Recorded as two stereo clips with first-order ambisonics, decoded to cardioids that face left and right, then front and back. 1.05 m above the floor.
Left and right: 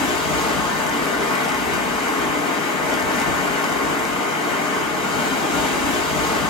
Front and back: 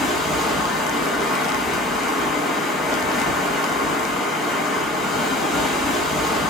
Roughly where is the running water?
Left.